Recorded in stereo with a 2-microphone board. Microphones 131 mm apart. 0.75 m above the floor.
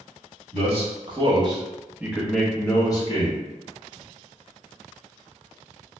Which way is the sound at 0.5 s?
50° right (ahead or behind).